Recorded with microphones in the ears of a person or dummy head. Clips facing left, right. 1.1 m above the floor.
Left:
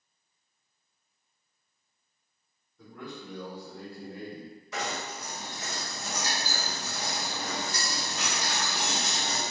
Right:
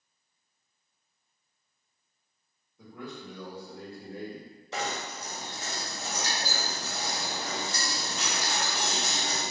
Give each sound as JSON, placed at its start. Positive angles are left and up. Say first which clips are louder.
{"t": 2.8, "sound": "a man speaking", "louder": "even", "side_deg": -15, "distance_m": 1.5}
{"t": 4.7, "sound": "knocking", "louder": "right 1 dB", "side_deg": -30, "distance_m": 1.5}